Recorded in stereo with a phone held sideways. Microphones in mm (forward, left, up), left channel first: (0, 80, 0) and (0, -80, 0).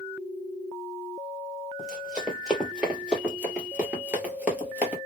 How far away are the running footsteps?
About 1.7 m.